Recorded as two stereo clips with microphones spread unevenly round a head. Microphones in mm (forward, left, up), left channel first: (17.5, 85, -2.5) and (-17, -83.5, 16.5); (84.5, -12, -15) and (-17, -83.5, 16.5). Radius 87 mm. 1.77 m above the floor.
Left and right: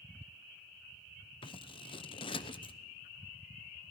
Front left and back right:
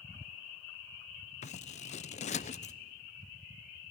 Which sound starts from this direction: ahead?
Scissors, at 1.4 s.